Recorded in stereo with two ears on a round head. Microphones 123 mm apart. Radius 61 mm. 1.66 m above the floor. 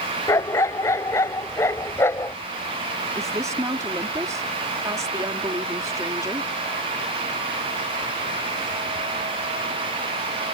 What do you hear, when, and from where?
0.3 s a dog barking: 20° left (ahead or behind)
3.1 s a woman speaking: 25° right (ahead or behind)